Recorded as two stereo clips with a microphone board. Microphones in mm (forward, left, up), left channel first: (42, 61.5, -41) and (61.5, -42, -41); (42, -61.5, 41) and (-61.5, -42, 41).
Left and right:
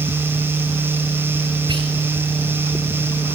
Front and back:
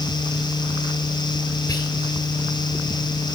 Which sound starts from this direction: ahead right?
Whispering, at 1.7 s.